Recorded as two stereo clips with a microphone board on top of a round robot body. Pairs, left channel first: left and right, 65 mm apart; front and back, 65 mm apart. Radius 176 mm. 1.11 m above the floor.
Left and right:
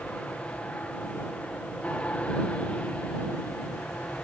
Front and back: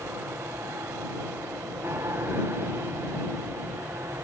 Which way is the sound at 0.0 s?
150° left.